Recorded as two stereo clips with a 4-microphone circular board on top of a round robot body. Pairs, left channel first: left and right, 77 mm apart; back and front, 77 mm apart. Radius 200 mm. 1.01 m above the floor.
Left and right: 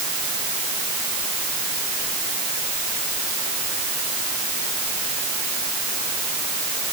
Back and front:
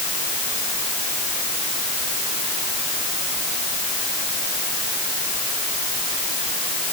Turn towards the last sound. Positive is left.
No sound to turn to.